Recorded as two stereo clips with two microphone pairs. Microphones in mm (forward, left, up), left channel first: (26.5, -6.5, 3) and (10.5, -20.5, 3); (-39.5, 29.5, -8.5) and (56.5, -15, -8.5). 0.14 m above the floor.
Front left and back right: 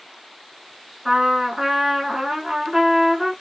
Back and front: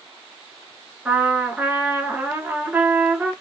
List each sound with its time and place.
1.1 s a trumpet: 90° right, 0.8 m